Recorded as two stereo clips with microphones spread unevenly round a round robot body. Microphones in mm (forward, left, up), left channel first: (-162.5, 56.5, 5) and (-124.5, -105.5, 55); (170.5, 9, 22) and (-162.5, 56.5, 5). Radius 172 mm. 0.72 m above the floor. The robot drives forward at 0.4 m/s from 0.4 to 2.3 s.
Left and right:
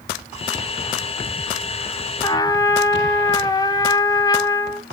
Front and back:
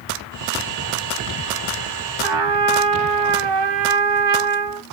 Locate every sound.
2.2 s a trumpet: straight behind, 1.0 m